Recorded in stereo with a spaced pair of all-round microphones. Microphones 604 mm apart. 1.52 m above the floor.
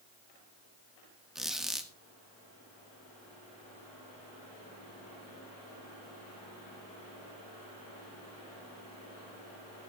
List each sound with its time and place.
1.4 s a squeak: centre (ahead or behind), 1.3 m